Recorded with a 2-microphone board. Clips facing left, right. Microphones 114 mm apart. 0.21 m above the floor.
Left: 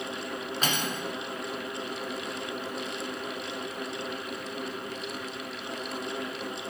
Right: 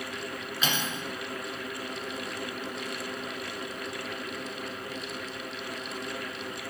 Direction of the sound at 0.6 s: 45° left (ahead or behind).